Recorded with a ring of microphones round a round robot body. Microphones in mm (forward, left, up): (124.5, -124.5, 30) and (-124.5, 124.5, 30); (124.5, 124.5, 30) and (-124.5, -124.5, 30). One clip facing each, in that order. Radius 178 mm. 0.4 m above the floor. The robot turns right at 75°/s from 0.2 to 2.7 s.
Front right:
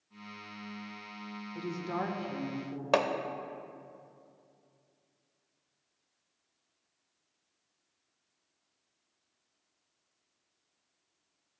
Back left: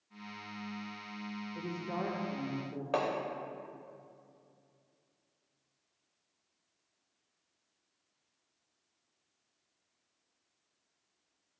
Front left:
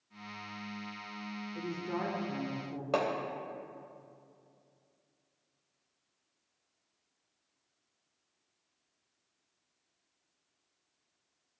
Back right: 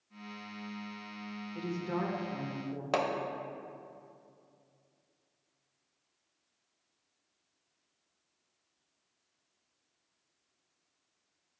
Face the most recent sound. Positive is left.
turn(degrees=-60)